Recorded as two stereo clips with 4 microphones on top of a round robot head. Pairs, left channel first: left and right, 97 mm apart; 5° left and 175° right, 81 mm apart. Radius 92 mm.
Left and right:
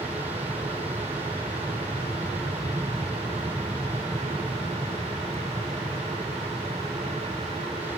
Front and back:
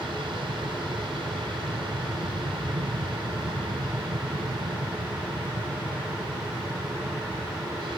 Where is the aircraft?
165° right.